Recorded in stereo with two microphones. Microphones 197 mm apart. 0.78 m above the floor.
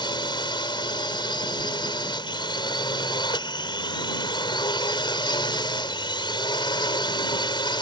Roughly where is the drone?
Left.